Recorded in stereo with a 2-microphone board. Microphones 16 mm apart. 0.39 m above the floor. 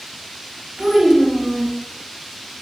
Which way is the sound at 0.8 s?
35° right (ahead or behind).